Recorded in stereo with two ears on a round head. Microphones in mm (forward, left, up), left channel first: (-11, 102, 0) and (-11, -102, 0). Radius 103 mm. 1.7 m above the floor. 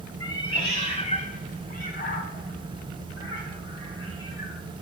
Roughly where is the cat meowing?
Centre.